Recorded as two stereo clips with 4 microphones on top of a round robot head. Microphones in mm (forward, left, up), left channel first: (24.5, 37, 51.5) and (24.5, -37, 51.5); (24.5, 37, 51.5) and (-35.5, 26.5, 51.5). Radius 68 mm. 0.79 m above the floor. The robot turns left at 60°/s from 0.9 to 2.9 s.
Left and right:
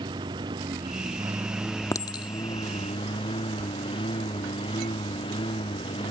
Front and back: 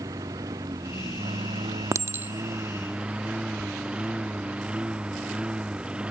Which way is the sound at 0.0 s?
125° right.